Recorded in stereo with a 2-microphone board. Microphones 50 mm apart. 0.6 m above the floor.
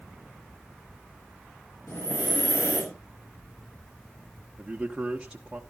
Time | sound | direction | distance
1.9 | breathing | 75° left (ahead or behind) | 5.5 m
4.6 | a man speaking | 15° right (ahead or behind) | 1.1 m